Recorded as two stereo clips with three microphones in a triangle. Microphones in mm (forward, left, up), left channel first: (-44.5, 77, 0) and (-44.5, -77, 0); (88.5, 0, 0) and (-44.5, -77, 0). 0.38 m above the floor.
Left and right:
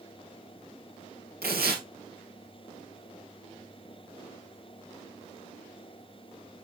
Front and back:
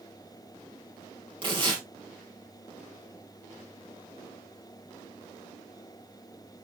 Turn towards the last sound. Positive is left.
turn(degrees=-90)